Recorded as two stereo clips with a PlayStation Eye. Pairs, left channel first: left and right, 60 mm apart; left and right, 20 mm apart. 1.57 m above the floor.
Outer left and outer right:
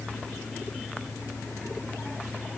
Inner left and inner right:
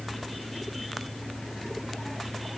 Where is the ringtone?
No ringtone in this recording.